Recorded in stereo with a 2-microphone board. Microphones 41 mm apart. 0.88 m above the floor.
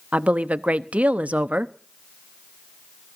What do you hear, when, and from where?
0.1 s a woman speaking: 35° right (ahead or behind), 0.8 m